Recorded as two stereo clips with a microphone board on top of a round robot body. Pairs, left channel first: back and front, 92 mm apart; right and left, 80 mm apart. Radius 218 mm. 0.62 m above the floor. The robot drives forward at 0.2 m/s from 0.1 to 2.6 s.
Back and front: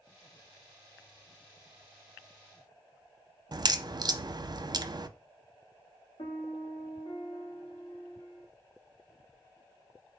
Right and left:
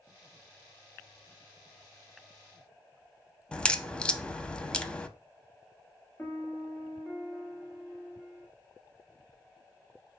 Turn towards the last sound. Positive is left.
turn(degrees=-160)